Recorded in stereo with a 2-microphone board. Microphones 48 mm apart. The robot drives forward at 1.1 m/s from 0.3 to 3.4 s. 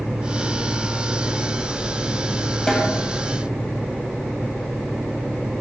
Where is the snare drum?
10° left (ahead or behind), 2 m; by 2.9 s 5° left (ahead or behind), 2.5 m.